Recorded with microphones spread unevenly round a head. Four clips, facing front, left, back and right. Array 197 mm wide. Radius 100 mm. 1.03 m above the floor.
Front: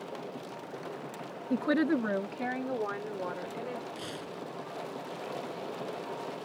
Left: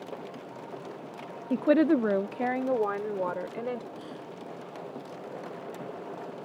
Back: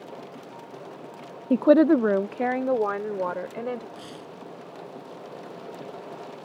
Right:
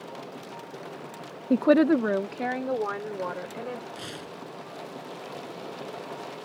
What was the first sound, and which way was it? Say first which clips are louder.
A woman speaking: right 3 dB, back 11 dB; 155° right.